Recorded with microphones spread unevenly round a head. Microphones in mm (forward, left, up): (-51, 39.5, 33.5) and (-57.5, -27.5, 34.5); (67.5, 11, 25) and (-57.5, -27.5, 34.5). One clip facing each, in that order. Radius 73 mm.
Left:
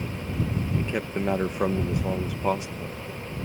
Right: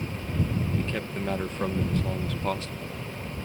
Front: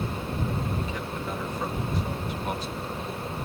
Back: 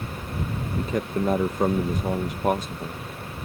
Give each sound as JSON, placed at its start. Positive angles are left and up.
{"t": 0.8, "sound": "a man speaking", "azimuth_deg": 155}